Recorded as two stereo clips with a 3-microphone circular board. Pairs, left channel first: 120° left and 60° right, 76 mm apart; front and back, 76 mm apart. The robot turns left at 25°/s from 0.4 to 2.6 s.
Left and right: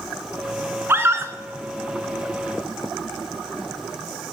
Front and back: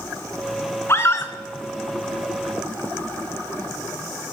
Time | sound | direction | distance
0.9 | a scream | 25° right | 1.6 m